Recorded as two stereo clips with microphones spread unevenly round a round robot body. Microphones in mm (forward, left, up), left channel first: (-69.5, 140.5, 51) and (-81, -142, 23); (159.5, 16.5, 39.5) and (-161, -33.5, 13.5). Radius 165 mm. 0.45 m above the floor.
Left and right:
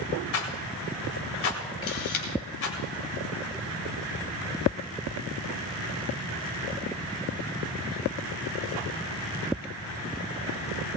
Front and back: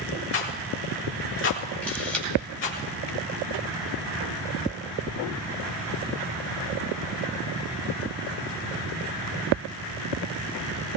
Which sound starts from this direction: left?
A camera shutter, at 1.8 s.